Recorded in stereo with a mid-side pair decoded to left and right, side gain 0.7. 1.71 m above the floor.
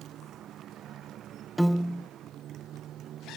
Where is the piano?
5° right.